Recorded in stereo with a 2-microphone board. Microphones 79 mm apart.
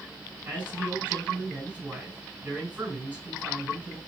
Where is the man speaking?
25° right (ahead or behind), 3.5 m.